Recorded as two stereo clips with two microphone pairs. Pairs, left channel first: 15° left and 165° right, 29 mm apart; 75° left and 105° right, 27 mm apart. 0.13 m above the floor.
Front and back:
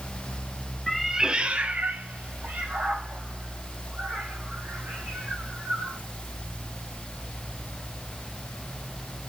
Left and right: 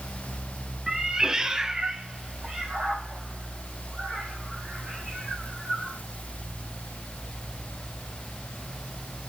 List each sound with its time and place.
0.9 s a cat meowing: 50° right, 0.7 m; by 6.0 s straight behind, 6 m